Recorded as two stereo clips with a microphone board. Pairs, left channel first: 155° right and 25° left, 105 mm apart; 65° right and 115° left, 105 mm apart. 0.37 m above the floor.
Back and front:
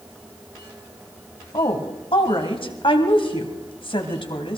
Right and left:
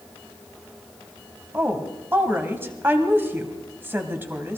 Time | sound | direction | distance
1.5 | a woman speaking | straight behind | 2 m